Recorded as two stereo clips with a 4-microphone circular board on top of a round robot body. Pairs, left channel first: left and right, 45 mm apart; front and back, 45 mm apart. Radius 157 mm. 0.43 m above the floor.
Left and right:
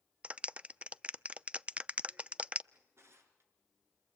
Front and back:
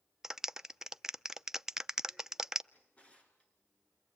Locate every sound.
0.2 s a clap: 110° right, 0.8 m
2.7 s a drawer: 60° right, 4.5 m